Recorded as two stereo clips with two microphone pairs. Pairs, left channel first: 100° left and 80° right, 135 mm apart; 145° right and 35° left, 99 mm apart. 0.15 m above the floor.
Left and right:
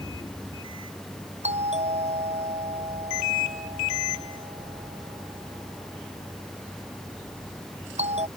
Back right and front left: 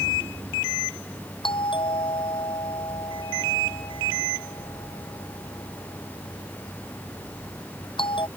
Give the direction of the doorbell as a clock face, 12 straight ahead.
4 o'clock.